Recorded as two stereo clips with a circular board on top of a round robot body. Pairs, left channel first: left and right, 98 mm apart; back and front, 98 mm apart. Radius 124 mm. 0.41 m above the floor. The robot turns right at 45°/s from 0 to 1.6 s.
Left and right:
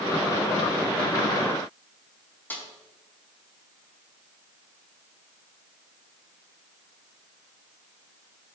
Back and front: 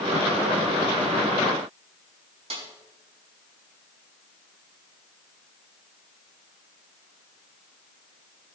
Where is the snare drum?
20° left, 4.5 m.